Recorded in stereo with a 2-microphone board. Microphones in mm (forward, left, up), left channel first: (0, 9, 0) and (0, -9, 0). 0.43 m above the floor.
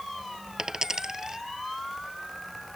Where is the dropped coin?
35° right (ahead or behind).